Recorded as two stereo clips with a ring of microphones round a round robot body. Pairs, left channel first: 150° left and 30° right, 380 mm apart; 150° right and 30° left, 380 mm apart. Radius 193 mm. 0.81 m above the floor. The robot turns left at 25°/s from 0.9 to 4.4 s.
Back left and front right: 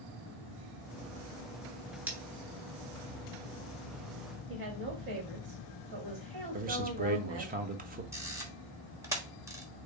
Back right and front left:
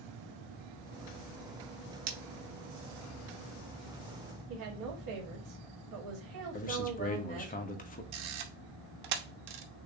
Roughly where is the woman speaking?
Ahead.